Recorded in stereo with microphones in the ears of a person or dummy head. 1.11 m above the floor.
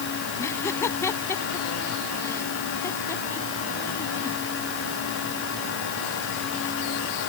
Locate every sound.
0.4 s laughter: 15° left (ahead or behind)